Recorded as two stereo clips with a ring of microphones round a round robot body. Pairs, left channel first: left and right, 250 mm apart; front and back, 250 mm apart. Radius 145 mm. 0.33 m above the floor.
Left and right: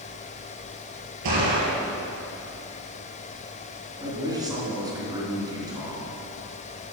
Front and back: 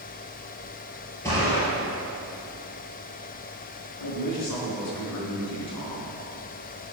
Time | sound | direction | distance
1.2 | a gunshot | 80° right | 3.5 m
4.0 | a man speaking | 15° right | 3.5 m